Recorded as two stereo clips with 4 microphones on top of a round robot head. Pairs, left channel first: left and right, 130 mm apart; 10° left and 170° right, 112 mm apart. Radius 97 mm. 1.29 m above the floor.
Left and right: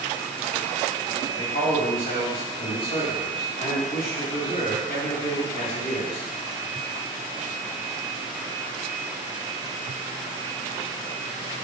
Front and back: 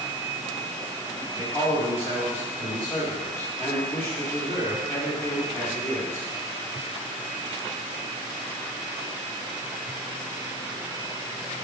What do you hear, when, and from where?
1.4 s a man speaking: 80° left, 1.7 m